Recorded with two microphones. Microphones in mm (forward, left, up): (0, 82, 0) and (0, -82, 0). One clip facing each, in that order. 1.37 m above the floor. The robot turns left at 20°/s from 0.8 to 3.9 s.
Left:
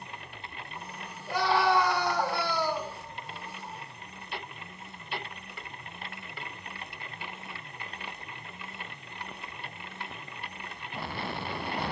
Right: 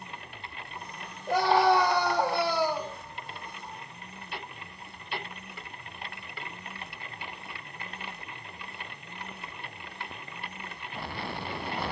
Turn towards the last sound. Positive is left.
turn(degrees=175)